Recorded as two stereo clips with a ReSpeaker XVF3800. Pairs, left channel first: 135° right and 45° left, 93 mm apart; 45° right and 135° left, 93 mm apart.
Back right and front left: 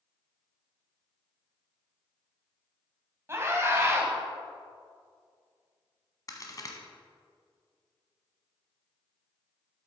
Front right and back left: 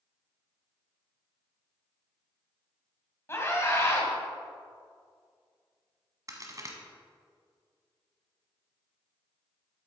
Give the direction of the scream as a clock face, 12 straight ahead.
12 o'clock.